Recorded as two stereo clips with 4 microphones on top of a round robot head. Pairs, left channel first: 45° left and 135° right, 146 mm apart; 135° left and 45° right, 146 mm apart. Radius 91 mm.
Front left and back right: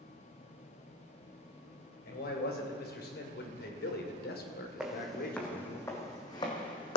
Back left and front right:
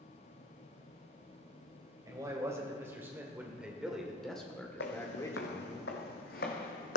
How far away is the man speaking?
About 3 m.